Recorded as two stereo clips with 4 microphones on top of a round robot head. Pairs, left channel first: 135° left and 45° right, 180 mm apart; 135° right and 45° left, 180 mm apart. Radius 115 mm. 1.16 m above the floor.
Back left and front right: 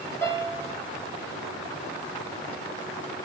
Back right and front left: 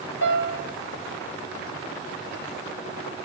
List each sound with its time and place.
0.2 s a piano: 145° right, 6 m